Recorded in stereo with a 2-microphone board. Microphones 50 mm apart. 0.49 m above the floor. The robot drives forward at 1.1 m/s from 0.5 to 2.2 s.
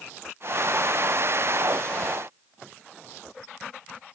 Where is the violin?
No violin in this recording.